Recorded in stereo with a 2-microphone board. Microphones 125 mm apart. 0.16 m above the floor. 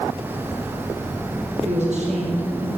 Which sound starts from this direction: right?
A woman speaking, at 1.6 s.